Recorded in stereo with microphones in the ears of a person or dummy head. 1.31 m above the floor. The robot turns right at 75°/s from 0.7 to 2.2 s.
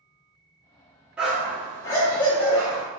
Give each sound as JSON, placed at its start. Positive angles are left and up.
{"t": 1.2, "sound": "a dog barking", "side_deg": -5, "distance_m": 0.7}